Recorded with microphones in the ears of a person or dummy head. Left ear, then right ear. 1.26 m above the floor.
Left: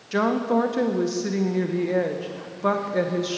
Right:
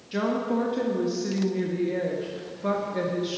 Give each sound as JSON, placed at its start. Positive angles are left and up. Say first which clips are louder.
{"t": 0.1, "sound": "a woman speaking", "louder": "left 5 dB", "side_deg": 30, "distance_m": 0.6}